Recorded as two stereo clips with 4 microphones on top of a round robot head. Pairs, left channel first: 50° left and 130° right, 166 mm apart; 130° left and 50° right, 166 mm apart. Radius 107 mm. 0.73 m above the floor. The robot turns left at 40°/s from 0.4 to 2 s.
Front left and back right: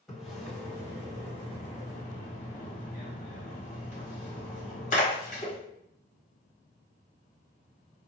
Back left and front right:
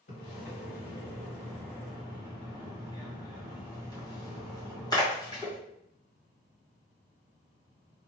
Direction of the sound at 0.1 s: 135° left.